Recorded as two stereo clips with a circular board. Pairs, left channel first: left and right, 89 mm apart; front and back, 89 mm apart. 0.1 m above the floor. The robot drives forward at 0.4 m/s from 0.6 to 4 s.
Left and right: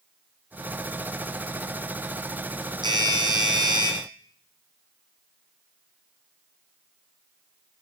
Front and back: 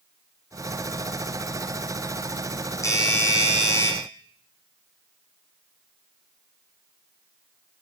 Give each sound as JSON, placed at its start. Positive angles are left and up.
{"t": 2.8, "sound": "a doorbell", "azimuth_deg": -55, "distance_m": 5.5}